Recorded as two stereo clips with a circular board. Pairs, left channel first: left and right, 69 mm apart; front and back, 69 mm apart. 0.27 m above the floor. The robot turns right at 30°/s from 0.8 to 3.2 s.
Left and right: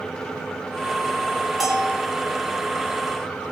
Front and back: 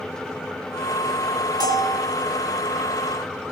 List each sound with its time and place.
1.6 s a bell: 175° right, 4 m; by 2.0 s 165° right, 4 m